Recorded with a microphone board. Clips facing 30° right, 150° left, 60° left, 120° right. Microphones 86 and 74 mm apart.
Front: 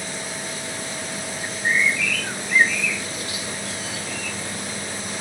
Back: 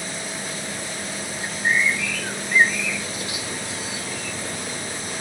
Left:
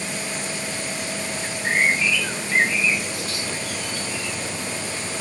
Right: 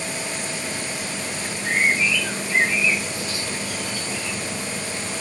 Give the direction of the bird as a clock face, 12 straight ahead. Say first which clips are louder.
Even, left 1 dB; 9 o'clock.